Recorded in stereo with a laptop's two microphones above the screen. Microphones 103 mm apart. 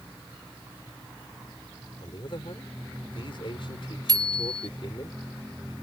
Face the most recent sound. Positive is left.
turn(degrees=-45)  # may be behind; listen again after turning